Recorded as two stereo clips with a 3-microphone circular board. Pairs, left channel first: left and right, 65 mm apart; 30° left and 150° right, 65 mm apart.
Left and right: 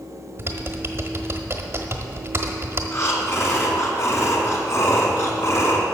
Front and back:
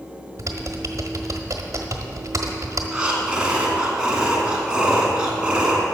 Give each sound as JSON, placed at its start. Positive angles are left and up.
{"t": 0.4, "sound": "typing on a keyboard", "azimuth_deg": -130, "distance_m": 1.2}
{"t": 2.9, "sound": "breathing", "azimuth_deg": 135, "distance_m": 2.0}